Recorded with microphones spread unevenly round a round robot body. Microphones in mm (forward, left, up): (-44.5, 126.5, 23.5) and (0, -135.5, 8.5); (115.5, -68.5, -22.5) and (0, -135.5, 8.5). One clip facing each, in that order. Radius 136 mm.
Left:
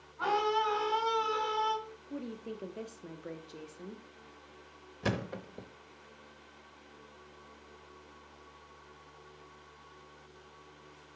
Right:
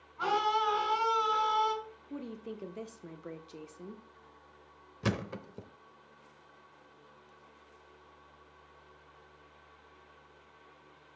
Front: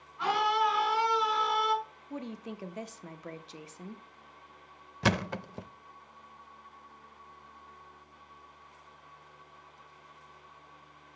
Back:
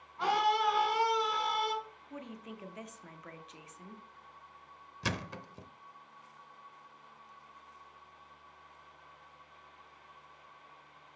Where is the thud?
5° right, 0.7 m.